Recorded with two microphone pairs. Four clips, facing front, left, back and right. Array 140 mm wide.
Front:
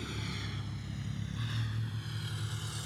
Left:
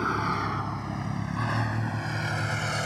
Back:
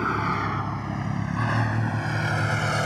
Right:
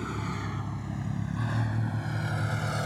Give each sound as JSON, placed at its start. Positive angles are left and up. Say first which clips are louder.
{"t": 0.0, "sound": "a vehicle", "louder": "left 7 dB, back 17 dB", "azimuth_deg": 140}